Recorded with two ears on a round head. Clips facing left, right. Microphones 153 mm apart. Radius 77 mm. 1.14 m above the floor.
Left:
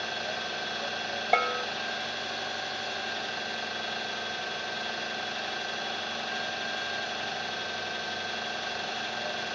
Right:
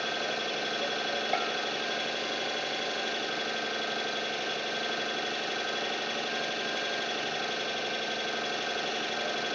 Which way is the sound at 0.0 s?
35° right (ahead or behind).